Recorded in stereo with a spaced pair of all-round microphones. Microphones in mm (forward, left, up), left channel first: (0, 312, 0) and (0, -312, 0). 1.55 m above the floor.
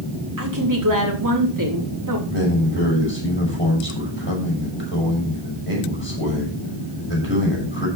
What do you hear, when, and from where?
0.4 s a woman speaking: 30° right (ahead or behind), 3.5 m
2.3 s a man speaking: 20° left (ahead or behind), 6.5 m